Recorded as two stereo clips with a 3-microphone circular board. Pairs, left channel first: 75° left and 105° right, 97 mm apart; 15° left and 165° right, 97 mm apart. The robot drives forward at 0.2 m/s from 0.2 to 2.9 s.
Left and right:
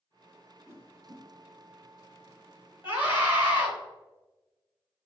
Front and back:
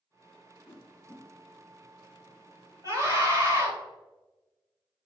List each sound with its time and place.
0.7 s a whoosh: 45° right, 0.8 m; by 1.2 s 50° right, 0.8 m
2.8 s a scream: 160° right, 1.4 m